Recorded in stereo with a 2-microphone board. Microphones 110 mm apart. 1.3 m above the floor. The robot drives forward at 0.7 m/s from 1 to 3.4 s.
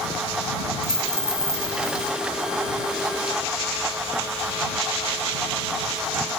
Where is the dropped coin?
5° left (ahead or behind), 4 m.